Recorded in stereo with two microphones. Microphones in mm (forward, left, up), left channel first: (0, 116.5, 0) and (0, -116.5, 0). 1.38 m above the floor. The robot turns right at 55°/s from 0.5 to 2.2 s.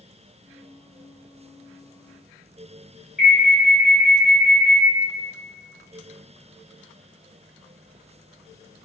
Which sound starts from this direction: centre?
An alarm, at 3.2 s.